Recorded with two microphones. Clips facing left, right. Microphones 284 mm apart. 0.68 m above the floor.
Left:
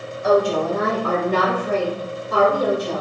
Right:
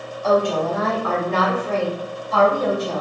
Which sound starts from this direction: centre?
A woman speaking, at 0.2 s.